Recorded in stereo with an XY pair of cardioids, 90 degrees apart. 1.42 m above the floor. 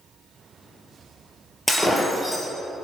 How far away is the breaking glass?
About 6 m.